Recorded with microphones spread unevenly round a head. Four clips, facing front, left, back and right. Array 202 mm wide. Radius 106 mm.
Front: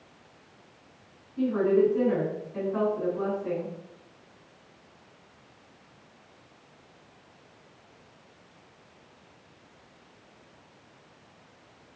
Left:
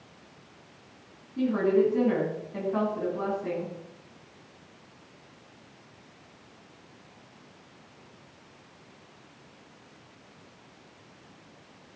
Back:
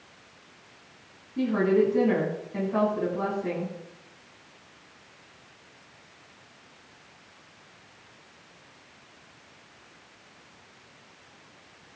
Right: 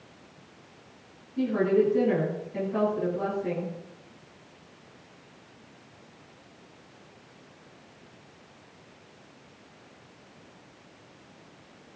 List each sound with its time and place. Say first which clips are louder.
1.4 s a woman speaking: even, even; 150° left, 9 m